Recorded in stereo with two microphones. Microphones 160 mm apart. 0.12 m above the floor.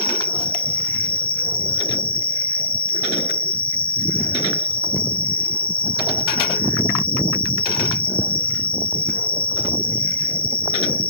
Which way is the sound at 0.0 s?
35° left (ahead or behind).